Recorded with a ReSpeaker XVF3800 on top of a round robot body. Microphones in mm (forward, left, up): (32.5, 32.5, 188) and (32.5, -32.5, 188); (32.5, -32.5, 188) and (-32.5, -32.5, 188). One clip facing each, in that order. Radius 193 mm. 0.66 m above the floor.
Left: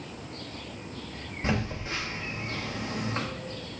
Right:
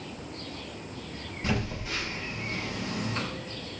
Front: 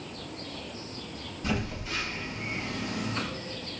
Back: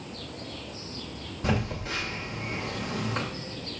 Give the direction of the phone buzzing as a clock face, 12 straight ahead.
7 o'clock.